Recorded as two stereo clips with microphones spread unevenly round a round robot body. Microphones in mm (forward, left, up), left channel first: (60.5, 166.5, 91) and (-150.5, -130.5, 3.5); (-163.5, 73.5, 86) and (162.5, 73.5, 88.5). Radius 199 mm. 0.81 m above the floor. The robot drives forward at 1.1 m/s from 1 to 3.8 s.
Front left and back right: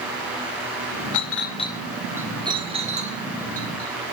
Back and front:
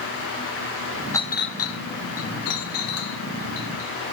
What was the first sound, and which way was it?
A clink, 100° left.